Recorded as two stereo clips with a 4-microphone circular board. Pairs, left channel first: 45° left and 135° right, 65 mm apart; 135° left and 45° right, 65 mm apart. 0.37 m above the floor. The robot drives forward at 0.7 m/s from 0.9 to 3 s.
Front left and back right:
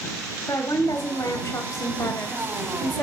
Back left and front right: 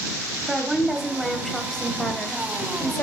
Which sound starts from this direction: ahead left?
A woman speaking, at 0.5 s.